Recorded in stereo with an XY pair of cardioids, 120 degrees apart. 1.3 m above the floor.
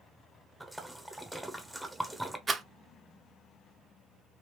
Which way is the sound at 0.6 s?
10° right.